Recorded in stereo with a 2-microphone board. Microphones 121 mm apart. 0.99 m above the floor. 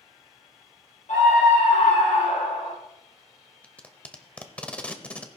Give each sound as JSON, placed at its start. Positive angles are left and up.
{"t": 1.1, "sound": "a scream", "side_deg": 80, "distance_m": 4.5}
{"t": 3.6, "sound": "tape being pulled", "side_deg": 10, "distance_m": 0.9}